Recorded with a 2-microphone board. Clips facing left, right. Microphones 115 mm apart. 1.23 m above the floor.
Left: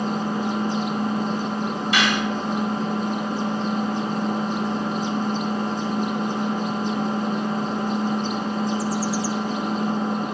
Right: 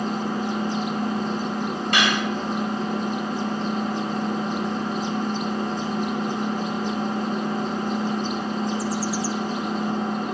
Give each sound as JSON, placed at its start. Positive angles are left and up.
{"t": 0.0, "sound": "an engine running", "side_deg": 40, "distance_m": 1.1}
{"t": 1.9, "sound": "cutlery clinking", "side_deg": -55, "distance_m": 1.8}